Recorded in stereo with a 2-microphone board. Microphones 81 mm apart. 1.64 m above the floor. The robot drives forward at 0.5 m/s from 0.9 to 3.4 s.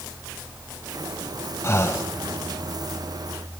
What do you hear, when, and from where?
1.6 s breathing: 30° left (ahead or behind), 0.8 m; by 2.1 s 35° left (ahead or behind), 0.7 m